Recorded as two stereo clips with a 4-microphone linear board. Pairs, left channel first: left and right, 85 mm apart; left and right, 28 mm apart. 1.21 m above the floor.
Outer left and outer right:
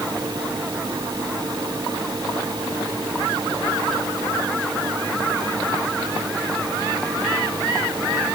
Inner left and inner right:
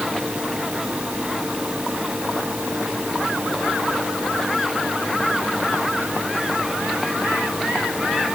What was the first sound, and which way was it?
Only background noise.